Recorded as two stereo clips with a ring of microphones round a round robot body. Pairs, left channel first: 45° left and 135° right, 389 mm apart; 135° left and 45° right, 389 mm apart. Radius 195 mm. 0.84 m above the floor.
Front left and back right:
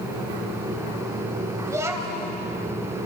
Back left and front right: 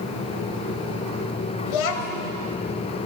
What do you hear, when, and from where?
1.7 s a child speaking: 145° left, 2.5 m